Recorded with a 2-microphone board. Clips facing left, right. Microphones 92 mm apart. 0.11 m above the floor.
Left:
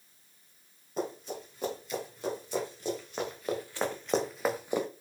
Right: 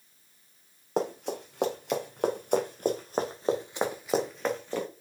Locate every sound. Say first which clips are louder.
1.0 s running footsteps: right 5 dB; 80° right, 3.5 m; by 4.9 s 20° left (ahead or behind), 2 m